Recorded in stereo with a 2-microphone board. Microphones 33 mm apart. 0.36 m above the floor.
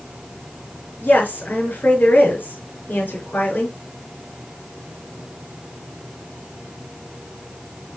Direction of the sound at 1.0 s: 70° left (ahead or behind).